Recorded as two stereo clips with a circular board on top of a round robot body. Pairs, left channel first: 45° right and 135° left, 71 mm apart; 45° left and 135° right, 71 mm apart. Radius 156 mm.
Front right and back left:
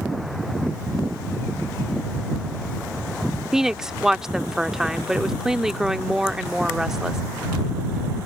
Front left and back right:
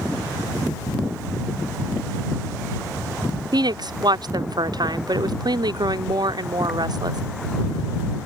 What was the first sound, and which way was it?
A woman speaking, 140° right.